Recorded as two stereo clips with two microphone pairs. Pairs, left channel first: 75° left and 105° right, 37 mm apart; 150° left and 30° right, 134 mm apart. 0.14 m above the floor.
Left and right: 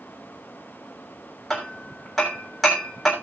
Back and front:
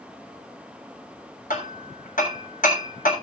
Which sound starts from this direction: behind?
Hammering, at 1.5 s.